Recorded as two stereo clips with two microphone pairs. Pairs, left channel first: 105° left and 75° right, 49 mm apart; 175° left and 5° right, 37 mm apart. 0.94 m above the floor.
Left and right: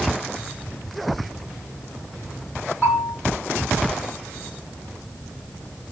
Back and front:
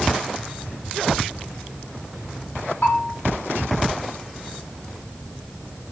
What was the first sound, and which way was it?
A bell, 160° left.